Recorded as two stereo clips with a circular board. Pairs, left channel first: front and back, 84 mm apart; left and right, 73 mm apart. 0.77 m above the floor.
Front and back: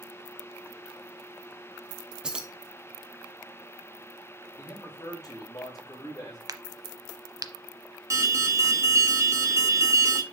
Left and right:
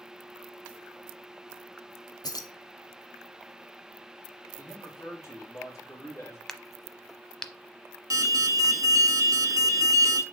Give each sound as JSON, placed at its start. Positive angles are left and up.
{"t": 2.2, "sound": "keys jangling", "azimuth_deg": 100, "distance_m": 0.9}
{"t": 4.6, "sound": "a man speaking", "azimuth_deg": 40, "distance_m": 3.5}
{"t": 6.5, "sound": "a crack", "azimuth_deg": 175, "distance_m": 0.8}
{"t": 8.1, "sound": "an alarm", "azimuth_deg": -130, "distance_m": 1.0}